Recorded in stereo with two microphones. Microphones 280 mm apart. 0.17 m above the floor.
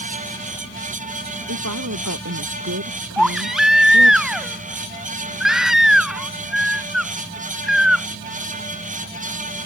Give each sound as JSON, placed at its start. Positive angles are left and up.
{"t": 1.5, "sound": "a woman speaking", "side_deg": -75}
{"t": 3.2, "sound": "a baby crying", "side_deg": 0}